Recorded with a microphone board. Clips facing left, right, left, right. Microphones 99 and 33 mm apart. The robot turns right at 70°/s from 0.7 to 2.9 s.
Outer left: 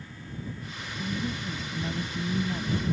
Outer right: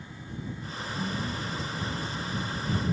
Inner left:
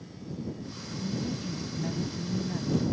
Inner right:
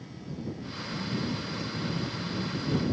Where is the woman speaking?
Straight ahead; by 2.8 s 130° left.